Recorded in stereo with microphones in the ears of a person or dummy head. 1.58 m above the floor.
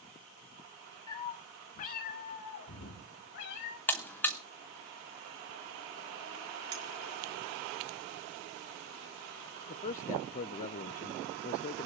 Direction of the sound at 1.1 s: 20° left (ahead or behind).